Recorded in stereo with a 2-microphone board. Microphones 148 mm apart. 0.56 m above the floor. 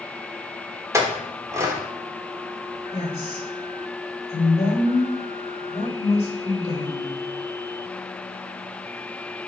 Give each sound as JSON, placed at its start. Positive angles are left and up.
{"t": 0.9, "sound": "a clink", "side_deg": -20, "distance_m": 1.1}
{"t": 2.9, "sound": "a woman speaking", "side_deg": 45, "distance_m": 2.0}